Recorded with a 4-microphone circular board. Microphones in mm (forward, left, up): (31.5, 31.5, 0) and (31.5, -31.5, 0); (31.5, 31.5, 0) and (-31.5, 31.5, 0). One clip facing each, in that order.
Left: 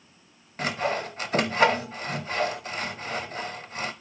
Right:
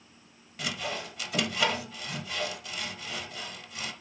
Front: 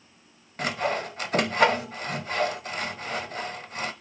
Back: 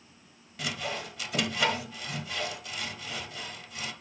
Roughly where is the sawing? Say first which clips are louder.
Left 7 dB, front 8 dB; ahead left.